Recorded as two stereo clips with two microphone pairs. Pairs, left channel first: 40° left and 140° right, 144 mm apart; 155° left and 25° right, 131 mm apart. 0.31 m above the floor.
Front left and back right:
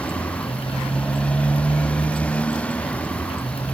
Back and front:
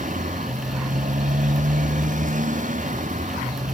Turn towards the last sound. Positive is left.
turn(degrees=-40)